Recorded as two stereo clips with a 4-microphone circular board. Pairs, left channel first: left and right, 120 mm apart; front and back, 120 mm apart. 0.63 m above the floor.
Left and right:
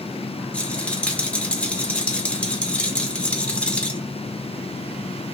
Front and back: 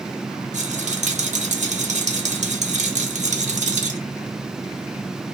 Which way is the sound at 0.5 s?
170° left.